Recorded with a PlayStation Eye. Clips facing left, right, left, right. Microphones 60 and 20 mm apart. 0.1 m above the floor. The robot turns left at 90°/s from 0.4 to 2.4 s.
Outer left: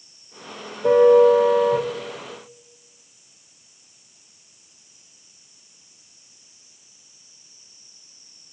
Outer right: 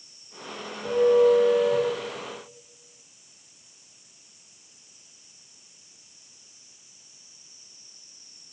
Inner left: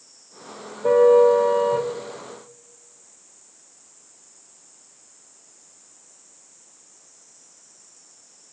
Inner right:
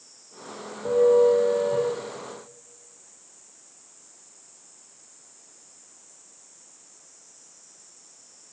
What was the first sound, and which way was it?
A car horn, 115° left.